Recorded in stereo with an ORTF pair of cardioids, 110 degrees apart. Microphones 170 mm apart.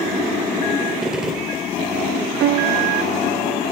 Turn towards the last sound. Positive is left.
turn(degrees=-65)